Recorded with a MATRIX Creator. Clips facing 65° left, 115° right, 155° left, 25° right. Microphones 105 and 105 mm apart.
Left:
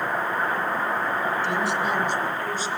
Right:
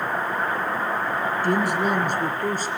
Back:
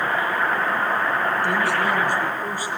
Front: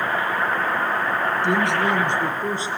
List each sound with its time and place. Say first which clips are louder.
1.4 s a woman speaking: right 3 dB, front 1 dB; 85° right, 3 m